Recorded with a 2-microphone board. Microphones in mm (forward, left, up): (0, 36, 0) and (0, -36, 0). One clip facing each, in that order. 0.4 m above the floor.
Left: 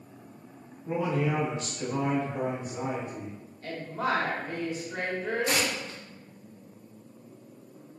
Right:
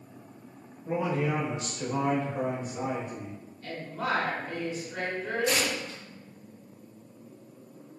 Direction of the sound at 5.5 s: 50° left (ahead or behind).